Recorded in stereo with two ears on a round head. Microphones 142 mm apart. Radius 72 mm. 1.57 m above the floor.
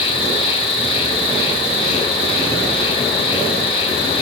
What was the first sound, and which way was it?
An insect, 35° left (ahead or behind).